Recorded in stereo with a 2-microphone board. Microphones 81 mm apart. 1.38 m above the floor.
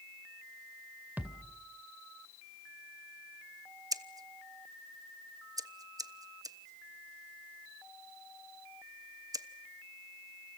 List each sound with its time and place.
1.2 s a thud: 20° right (ahead or behind), 2.5 m
3.9 s scissors: 50° right (ahead or behind), 1.0 m